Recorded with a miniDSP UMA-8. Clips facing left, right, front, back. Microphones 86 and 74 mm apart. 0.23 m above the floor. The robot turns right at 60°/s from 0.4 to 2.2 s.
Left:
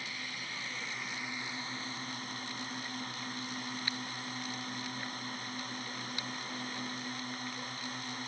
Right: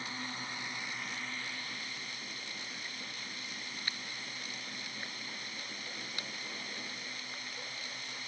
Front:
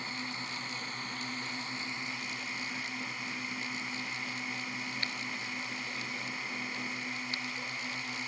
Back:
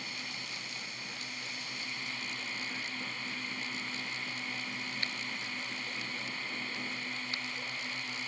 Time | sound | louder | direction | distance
0.0 | a drone | right 2 dB, front 4 dB | 35° right | ?